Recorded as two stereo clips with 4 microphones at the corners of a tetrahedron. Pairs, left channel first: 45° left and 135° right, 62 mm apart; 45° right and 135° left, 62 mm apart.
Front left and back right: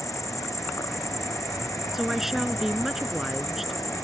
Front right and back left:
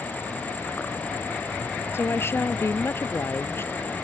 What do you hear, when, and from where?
0.0 s an insect: 15° left
1.9 s a woman speaking: 50° right